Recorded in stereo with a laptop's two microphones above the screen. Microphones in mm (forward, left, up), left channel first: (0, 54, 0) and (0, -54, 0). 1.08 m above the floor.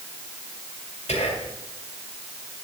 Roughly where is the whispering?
Left.